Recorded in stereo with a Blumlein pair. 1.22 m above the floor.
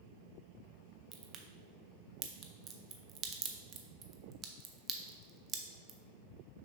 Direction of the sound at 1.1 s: 25° right.